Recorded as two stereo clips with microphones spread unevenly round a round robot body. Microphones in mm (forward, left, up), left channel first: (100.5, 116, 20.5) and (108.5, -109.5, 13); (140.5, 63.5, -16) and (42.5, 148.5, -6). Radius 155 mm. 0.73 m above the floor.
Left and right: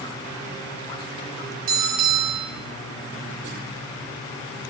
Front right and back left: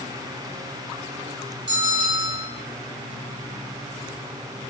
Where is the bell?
150° right, 1.2 m.